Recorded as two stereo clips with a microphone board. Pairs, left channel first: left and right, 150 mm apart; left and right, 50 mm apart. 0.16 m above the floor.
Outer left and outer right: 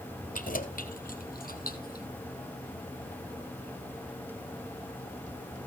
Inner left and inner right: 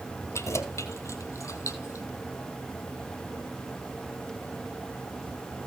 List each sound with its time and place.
0.3 s keys jangling: 70° left (ahead or behind), 2.5 m; by 2.0 s 80° left, 4 m